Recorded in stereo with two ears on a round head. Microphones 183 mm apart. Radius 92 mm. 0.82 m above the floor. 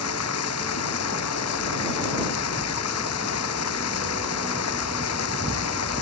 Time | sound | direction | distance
0.0 | running water | 85° left | ?